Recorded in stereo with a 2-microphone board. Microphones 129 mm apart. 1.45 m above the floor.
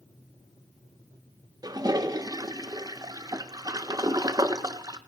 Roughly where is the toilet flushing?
Right.